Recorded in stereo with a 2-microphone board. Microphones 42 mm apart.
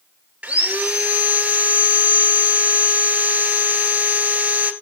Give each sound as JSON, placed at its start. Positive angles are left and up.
{"t": 0.4, "sound": "sawing", "side_deg": -30, "distance_m": 2.0}